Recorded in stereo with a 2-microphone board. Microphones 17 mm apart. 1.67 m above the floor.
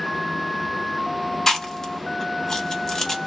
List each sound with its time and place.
1.5 s chewing: 35° left (ahead or behind), 1.0 m